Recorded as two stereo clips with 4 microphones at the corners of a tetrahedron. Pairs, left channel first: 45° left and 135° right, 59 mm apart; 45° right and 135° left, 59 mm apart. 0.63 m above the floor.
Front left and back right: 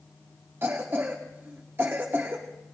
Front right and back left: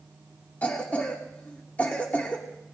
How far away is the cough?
About 1.3 m.